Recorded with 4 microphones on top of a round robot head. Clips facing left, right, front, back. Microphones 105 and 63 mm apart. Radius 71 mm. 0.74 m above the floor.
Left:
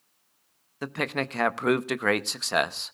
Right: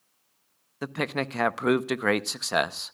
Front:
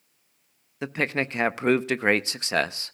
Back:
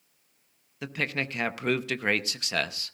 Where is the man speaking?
5° right, 0.6 m.